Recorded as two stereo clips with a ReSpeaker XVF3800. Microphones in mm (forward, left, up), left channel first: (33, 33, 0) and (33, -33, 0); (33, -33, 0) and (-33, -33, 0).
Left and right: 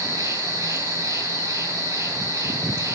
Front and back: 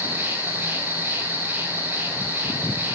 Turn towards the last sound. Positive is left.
turn(degrees=-130)